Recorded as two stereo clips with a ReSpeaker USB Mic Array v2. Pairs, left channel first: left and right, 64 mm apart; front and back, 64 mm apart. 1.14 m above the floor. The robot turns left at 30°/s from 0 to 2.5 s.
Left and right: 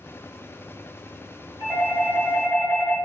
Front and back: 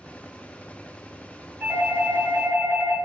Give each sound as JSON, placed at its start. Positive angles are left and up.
{"t": 1.6, "sound": "a doorbell", "azimuth_deg": -105, "distance_m": 1.9}